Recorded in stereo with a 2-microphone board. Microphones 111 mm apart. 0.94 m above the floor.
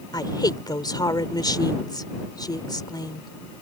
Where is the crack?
I don't hear a crack.